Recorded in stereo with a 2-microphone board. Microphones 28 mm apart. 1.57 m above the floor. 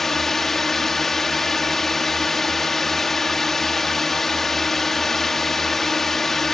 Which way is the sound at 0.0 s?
10° left (ahead or behind).